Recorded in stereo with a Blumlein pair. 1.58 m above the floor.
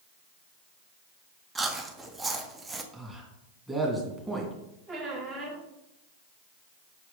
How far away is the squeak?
About 2 m.